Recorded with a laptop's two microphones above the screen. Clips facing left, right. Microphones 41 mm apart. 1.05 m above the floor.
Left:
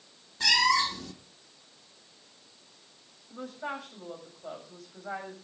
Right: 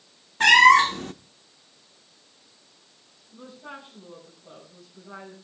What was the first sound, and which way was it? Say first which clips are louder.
A cat meowing: right 11 dB; 50° right (ahead or behind).